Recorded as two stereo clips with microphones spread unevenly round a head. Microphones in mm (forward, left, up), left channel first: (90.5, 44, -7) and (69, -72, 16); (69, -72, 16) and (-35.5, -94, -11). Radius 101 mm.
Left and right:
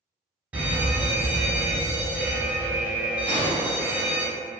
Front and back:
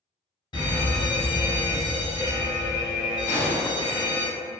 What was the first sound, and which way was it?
A fire alarm, 15° right.